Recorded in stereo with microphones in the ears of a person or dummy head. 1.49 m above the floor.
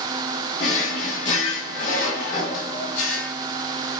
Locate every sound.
0.6 s a drawer: 50° left (ahead or behind), 2.0 m